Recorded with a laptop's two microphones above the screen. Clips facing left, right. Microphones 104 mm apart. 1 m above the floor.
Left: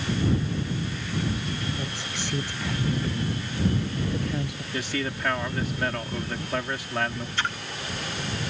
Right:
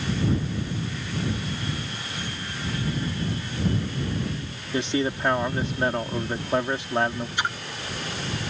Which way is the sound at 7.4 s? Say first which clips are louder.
Right 1 dB; 15° right (ahead or behind).